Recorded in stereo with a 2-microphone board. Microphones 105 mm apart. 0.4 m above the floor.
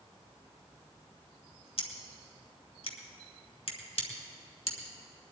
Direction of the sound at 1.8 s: 65° left (ahead or behind).